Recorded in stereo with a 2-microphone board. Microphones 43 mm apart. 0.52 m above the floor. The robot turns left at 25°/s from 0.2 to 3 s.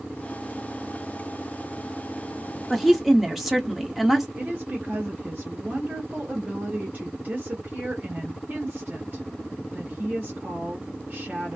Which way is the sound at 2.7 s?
5° right (ahead or behind).